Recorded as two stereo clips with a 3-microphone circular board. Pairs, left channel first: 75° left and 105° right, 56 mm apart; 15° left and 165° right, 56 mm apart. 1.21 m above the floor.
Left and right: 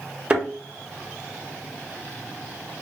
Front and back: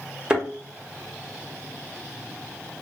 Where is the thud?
120° right, 0.8 m.